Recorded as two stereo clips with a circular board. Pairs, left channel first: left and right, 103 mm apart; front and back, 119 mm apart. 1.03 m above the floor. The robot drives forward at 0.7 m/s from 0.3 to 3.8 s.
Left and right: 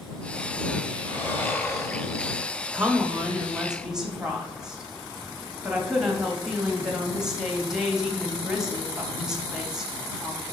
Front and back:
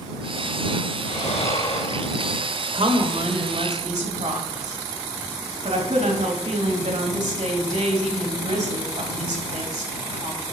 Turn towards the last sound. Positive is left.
turn(degrees=-175)